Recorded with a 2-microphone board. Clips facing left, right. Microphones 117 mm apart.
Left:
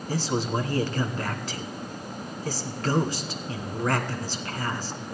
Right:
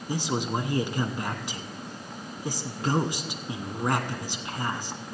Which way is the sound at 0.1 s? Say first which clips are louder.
Left 1 dB; 15° right (ahead or behind).